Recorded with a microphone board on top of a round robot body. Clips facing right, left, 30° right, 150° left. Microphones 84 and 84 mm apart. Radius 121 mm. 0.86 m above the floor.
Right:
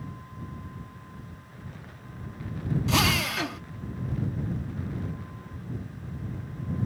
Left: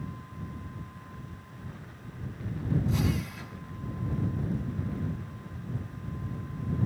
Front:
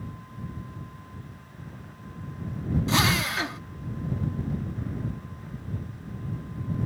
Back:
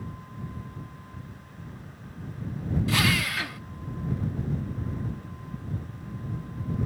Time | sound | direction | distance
2.9 | a drill | 95° right | ?